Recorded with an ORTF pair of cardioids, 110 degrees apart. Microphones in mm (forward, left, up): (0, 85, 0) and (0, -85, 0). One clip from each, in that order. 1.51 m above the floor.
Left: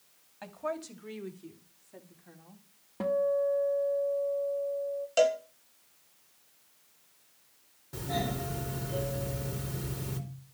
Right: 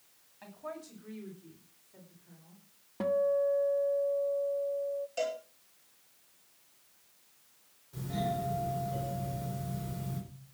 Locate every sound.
0.4 s a woman speaking: 45° left, 2.5 m; by 2.6 s 75° left, 3.5 m
3.0 s a guitar: straight ahead, 1.1 m
5.2 s a cowbell: 65° left, 2.5 m
7.9 s a doorbell: 65° left, 4.5 m